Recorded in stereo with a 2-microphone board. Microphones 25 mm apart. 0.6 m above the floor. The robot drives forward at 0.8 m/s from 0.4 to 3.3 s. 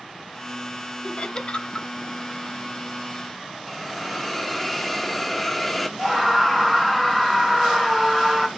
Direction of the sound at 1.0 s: 45° left (ahead or behind).